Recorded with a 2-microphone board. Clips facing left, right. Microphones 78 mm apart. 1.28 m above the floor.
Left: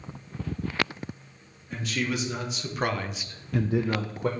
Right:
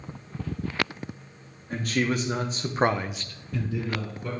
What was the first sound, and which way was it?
A man speaking, 50° right (ahead or behind).